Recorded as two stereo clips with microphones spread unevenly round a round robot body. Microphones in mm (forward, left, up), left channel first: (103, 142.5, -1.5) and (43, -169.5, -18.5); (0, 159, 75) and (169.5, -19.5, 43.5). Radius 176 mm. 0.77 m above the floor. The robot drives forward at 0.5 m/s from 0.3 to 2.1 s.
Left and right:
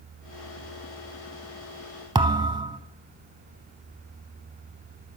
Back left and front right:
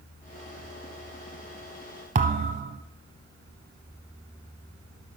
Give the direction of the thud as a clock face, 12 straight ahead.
1 o'clock.